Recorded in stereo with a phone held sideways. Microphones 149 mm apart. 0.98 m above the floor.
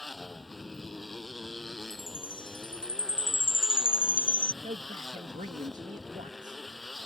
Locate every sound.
0.0 s a motorcycle: centre (ahead or behind)
1.9 s a chime: 65° left (ahead or behind)
4.6 s a man speaking: 60° right (ahead or behind)